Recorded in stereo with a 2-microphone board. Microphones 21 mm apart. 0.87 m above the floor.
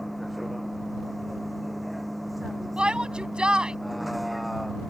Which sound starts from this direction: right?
A shout, at 2.8 s.